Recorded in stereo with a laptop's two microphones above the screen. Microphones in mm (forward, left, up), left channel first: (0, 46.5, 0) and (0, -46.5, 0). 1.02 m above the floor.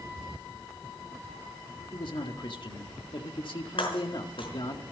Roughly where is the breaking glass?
Left.